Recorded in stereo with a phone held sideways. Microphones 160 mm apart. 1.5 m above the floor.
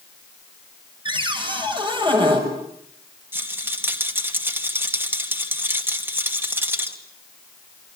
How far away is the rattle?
About 2.5 m.